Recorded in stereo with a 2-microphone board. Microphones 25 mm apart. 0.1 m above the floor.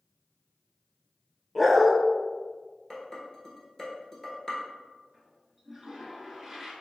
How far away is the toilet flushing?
About 0.7 m.